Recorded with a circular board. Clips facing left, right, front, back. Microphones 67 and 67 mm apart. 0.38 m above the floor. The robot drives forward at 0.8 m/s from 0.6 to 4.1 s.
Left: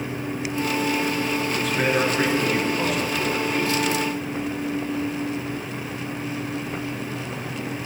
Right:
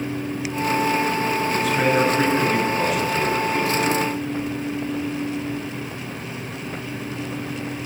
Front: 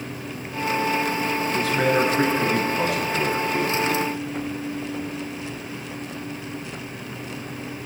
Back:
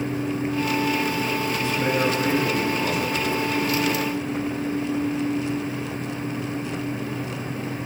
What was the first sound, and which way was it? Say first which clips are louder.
A man speaking: right 3 dB, front 5 dB; straight ahead.